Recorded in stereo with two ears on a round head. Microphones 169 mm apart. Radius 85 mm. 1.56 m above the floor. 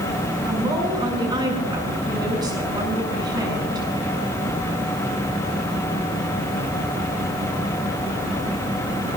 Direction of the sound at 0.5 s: 25° right (ahead or behind).